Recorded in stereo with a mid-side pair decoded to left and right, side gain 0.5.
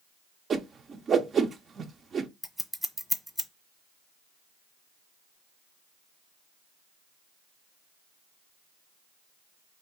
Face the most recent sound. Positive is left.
turn(degrees=0)